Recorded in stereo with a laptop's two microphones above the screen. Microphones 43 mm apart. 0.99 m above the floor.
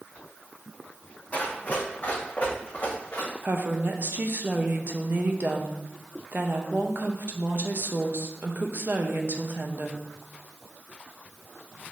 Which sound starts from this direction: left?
Running footsteps, at 1.3 s.